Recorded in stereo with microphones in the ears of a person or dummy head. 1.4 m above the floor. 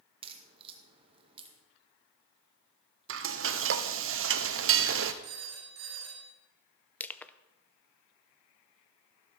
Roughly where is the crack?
Right.